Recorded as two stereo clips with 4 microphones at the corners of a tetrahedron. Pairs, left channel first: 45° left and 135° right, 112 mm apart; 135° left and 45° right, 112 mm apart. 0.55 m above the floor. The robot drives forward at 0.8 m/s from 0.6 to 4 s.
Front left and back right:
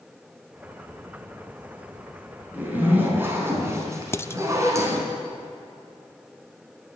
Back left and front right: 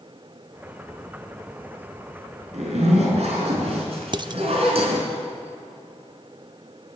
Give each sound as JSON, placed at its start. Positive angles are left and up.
{"t": 2.5, "sound": "a zipper", "azimuth_deg": -60, "distance_m": 5.0}
{"t": 4.1, "sound": "dishes clattering", "azimuth_deg": -15, "distance_m": 0.6}